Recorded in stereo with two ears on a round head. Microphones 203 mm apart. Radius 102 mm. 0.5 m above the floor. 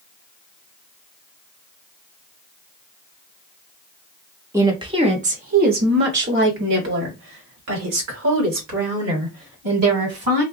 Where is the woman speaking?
10° right (ahead or behind), 1.0 m; by 10.4 s 75° right (ahead or behind), 4 m.